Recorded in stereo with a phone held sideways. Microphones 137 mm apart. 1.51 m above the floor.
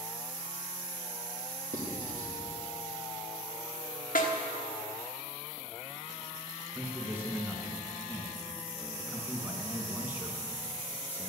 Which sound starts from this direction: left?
A snare drum, at 4.2 s.